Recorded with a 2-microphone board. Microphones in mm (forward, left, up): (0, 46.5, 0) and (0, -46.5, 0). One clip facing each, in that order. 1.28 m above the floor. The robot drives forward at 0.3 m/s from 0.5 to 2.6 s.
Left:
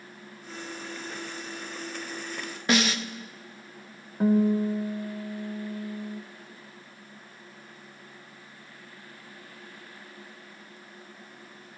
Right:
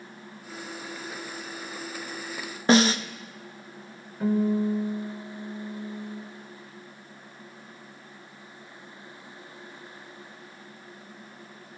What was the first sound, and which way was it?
A snare drum, 35° right (ahead or behind).